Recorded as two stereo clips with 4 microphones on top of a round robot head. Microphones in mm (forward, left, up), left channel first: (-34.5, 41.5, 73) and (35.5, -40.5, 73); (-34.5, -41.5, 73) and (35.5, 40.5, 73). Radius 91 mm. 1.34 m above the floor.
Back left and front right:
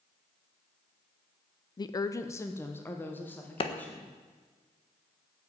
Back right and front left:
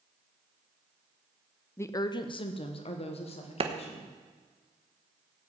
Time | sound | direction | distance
1.8 | a woman speaking | 165° left | 0.6 m
3.6 | a clap | 90° left | 1.3 m